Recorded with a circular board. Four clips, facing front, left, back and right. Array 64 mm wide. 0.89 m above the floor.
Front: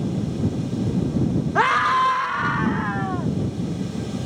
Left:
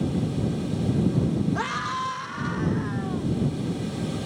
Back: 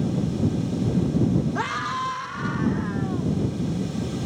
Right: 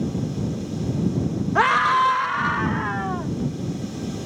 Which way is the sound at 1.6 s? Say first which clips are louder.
Right 11 dB, front 9 dB; 55° right.